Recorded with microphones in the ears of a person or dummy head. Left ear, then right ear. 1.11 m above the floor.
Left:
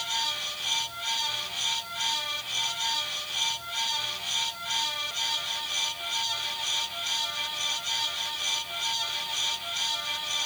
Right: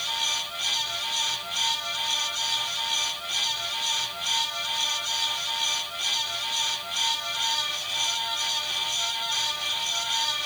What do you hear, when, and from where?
Only background noise.